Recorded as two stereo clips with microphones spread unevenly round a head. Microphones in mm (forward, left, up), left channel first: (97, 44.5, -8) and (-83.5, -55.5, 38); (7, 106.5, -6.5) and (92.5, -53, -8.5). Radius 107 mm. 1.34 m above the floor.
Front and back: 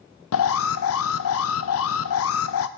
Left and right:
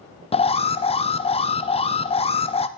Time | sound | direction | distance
0.3 | an alarm | 60° left | 0.7 m